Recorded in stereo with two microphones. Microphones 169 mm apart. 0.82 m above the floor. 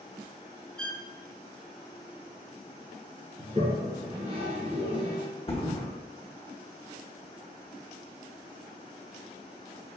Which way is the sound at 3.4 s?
55° right (ahead or behind).